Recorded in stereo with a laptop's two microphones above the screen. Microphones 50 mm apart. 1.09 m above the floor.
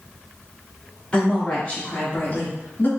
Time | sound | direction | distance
1.1 | a woman speaking | 20° left (ahead or behind) | 2 m